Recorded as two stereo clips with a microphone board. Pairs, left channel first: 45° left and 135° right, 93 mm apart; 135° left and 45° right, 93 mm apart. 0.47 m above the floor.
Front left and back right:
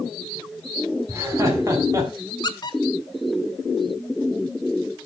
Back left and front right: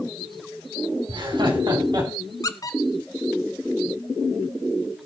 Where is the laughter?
75° right, 5 m; by 2.1 s 85° right, 4.5 m.